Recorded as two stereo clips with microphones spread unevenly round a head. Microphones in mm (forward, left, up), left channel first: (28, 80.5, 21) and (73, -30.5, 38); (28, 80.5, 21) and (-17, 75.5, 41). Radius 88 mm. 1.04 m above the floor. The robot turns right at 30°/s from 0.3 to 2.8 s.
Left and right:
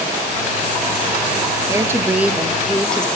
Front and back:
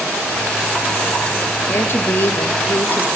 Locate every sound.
1.7 s a woman speaking: straight ahead, 1.2 m; by 3.1 s 30° left, 1.2 m